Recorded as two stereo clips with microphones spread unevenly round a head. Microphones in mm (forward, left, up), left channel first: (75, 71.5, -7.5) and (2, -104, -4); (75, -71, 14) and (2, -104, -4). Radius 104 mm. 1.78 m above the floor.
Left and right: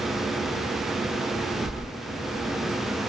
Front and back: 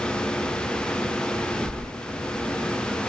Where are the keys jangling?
120° right, 0.9 m.